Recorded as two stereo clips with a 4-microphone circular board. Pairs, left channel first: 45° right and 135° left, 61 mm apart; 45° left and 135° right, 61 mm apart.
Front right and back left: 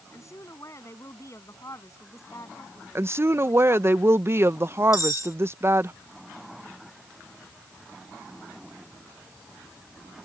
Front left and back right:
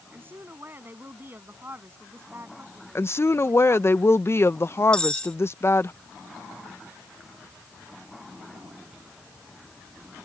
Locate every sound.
0.1 s a woman speaking: 80° right
3.0 s a woman speaking: 90° left
4.9 s cutlery clinking: 30° right